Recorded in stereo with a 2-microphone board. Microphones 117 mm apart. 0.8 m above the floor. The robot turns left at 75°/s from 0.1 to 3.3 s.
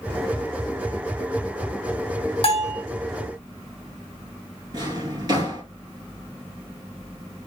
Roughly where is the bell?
Left.